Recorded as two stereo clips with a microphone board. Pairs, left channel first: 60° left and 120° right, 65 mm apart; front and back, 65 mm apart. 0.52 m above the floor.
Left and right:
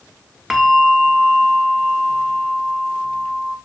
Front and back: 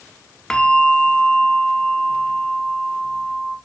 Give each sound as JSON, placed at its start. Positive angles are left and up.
{"t": 0.5, "sound": "a bell", "azimuth_deg": -50, "distance_m": 0.8}